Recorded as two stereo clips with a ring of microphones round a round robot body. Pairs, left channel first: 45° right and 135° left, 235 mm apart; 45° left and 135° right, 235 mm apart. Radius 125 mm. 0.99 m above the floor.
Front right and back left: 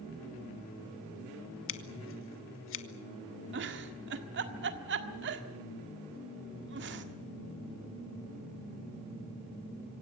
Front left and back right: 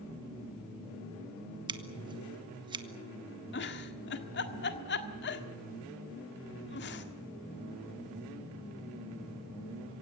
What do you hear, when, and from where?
1.7 s scissors: 65° right, 1.5 m
3.5 s a giggle: 90° left, 1.6 m